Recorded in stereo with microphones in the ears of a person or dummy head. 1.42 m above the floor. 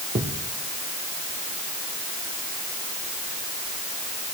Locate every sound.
0.1 s a thud: 25° right (ahead or behind), 1.9 m